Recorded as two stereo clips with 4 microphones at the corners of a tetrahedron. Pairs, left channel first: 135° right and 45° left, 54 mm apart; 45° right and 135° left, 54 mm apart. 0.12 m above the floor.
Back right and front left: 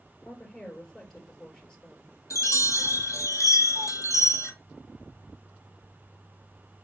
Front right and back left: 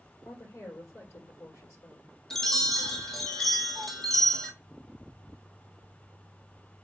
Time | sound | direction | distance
0.2 | a woman speaking | 60° right | 3 m
2.3 | a chime | 130° right | 1.2 m